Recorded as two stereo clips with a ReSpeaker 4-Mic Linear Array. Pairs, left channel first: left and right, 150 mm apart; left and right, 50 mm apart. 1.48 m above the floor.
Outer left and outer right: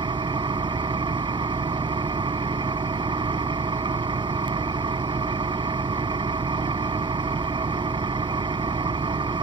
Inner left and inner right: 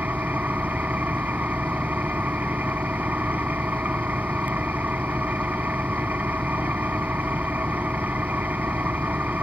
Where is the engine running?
30° right (ahead or behind).